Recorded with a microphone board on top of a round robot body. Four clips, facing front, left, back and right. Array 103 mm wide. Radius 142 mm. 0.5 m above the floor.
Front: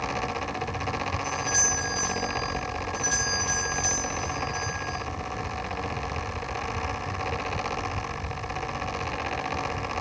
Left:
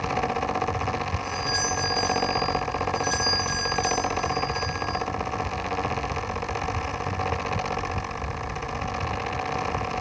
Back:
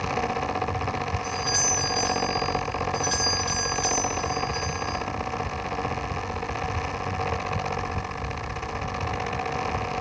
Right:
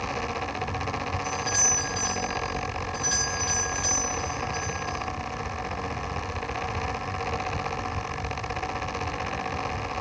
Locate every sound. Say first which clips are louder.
1.2 s a doorbell: left 2 dB, back 1 dB; 155° right, 7 m